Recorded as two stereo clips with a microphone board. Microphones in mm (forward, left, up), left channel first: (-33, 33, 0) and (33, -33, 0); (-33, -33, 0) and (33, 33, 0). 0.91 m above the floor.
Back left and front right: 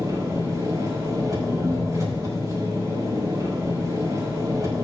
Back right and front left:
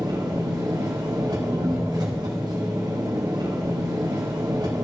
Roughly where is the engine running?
Ahead.